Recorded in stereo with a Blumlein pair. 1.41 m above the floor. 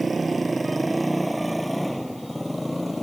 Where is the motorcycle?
15° right; by 3.0 s 5° left.